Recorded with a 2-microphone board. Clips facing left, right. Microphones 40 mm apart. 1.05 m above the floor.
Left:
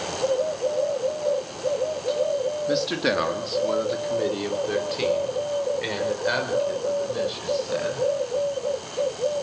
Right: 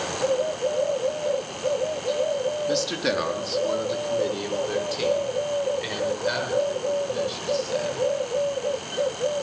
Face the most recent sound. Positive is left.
turn(degrees=15)  # may be behind; listen again after turning